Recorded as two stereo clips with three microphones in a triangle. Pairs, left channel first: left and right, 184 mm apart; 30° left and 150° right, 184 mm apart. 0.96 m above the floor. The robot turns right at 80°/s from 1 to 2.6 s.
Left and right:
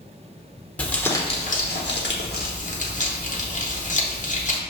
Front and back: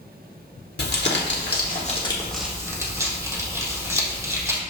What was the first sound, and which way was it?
Crumpling, 10° left.